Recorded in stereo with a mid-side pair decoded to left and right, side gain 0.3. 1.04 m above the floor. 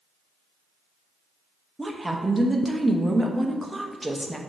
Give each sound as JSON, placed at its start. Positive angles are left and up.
{"t": 1.8, "sound": "a woman speaking", "azimuth_deg": -15, "distance_m": 0.7}